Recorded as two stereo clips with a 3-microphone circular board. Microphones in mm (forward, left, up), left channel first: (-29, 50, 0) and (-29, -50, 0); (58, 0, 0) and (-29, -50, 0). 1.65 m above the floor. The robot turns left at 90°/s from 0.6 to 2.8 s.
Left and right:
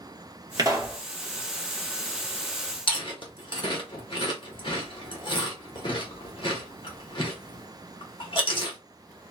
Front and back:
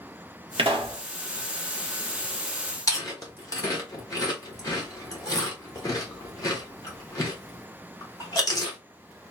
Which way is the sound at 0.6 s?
135° right.